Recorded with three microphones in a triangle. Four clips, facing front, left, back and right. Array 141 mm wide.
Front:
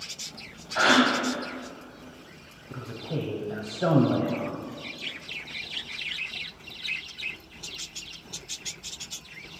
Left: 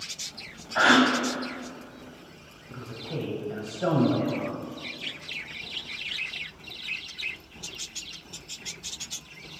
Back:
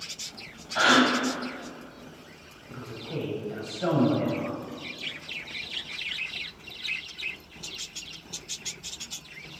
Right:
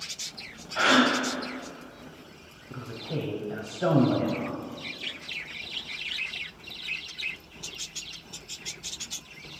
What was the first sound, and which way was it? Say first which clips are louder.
A gasp: left 2 dB, even; 85° left.